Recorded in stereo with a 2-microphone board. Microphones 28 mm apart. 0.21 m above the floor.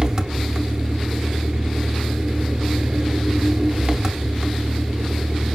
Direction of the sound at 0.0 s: 25° right (ahead or behind).